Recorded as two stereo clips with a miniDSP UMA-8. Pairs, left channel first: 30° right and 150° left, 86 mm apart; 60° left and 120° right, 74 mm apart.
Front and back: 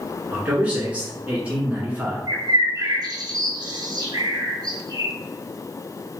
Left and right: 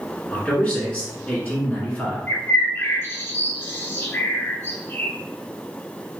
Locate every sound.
0.3 s a man speaking: 105° left, 1.3 m
2.3 s a bird: 120° left, 0.8 m